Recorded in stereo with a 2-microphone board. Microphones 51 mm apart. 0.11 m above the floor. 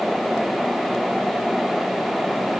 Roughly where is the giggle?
No giggle in this recording.